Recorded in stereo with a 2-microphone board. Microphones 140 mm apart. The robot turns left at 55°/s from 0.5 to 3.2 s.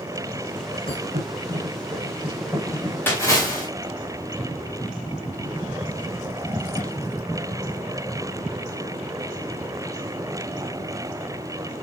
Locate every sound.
0.9 s a thud: 90° right, 5.5 m; by 3.0 s 25° left (ahead or behind), 5.5 m
3.1 s a splash: 15° left (ahead or behind), 3 m; by 3.7 s 20° left (ahead or behind), 3 m